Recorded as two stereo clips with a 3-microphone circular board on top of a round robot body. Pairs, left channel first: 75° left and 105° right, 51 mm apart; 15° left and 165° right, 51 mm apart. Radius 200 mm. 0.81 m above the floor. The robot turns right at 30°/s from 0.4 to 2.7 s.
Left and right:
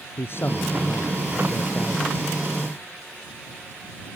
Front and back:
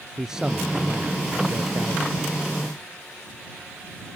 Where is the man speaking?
115° left; by 2.0 s 165° left.